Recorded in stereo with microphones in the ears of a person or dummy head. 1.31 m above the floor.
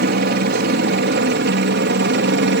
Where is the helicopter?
50° right (ahead or behind); by 2.6 s 55° right (ahead or behind).